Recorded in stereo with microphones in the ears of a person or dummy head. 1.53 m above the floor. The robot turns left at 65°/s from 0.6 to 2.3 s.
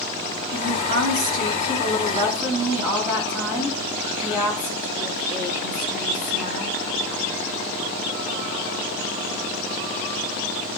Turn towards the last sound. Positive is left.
turn(degrees=-170)